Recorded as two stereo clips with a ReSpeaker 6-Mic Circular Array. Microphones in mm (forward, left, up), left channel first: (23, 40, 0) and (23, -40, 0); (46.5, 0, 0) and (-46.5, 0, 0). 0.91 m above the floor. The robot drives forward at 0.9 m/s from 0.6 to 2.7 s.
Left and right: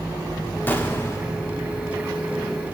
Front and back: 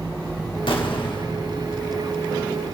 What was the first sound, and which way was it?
An explosion, 25° left.